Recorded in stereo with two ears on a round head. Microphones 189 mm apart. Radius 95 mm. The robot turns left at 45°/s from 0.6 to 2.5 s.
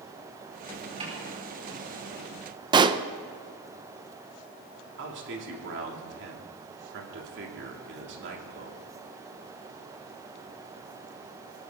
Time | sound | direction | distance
1.0 | a snare drum | 30° right (ahead or behind) | 8 m
2.7 | a pop | 20° right (ahead or behind) | 0.7 m
5.0 | a man speaking | 60° right (ahead or behind) | 3 m